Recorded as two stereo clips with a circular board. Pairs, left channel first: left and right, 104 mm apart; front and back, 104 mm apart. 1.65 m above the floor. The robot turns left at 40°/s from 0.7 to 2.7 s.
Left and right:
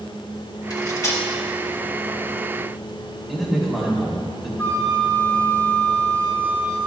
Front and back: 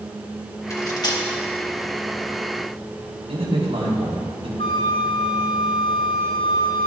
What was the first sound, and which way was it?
Cutlery clinking, 50° left.